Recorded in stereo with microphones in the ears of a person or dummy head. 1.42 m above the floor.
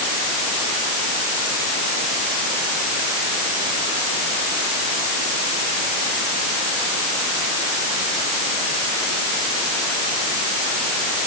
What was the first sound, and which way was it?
Only background noise.